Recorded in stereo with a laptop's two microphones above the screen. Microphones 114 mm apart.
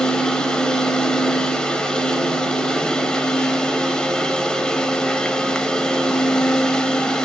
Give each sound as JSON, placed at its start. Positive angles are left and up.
{"t": 0.0, "sound": "a machine running", "side_deg": 5, "distance_m": 1.6}